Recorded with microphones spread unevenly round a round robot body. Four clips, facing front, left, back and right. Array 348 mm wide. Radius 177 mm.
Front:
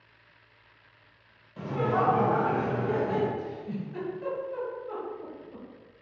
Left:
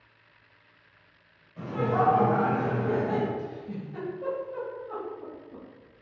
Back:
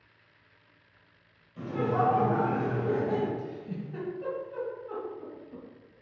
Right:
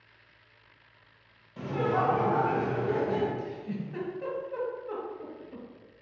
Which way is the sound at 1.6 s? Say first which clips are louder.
Left 1 dB, front 1 dB; 70° right.